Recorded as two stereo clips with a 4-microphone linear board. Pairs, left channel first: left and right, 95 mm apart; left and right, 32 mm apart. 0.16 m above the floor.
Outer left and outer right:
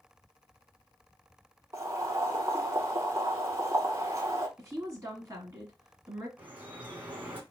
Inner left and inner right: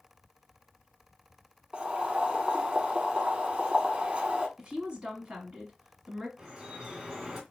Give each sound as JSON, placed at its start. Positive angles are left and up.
{"t": 1.7, "sound": "boiling", "side_deg": -40, "distance_m": 0.6}
{"t": 4.6, "sound": "a woman speaking", "side_deg": -25, "distance_m": 1.2}
{"t": 6.4, "sound": "dripping", "side_deg": -15, "distance_m": 1.4}